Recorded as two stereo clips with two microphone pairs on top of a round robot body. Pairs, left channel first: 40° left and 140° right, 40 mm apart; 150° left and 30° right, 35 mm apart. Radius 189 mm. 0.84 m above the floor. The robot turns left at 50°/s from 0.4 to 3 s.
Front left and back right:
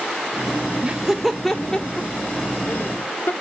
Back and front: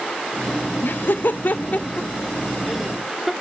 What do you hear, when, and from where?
0.8 s laughter: 160° left, 0.8 m; by 3.3 s 55° left, 0.8 m